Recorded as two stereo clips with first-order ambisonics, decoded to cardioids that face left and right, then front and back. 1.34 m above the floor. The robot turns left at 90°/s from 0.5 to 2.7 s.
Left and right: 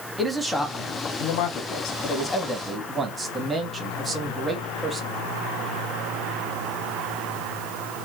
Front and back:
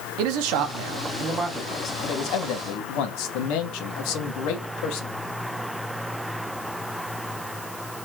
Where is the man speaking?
Straight behind, 0.8 m; by 5.1 s 20° right, 0.8 m.